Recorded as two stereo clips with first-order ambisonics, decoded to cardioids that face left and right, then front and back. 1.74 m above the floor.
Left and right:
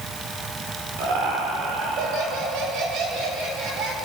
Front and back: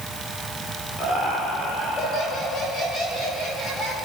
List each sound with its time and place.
1.0 s laughter: 60° right, 5 m; by 4.0 s 65° right, 9.5 m